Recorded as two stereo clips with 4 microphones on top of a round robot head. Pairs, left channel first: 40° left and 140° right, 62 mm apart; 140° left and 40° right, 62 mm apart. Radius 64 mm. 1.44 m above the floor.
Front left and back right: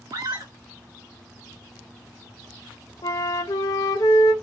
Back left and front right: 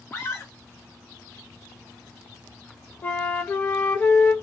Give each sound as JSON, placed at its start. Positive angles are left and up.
{"t": 0.1, "sound": "a scream", "azimuth_deg": -170, "distance_m": 1.7}
{"t": 3.0, "sound": "a flute", "azimuth_deg": 75, "distance_m": 0.5}